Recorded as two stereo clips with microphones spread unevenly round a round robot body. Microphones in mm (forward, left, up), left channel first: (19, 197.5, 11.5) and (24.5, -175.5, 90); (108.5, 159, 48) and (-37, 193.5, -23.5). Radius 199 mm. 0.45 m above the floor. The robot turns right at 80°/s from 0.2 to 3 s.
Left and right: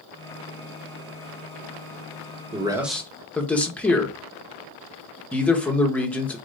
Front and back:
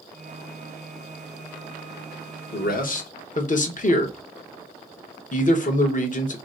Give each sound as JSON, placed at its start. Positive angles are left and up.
{"t": 2.5, "sound": "a man speaking", "azimuth_deg": -10, "distance_m": 1.0}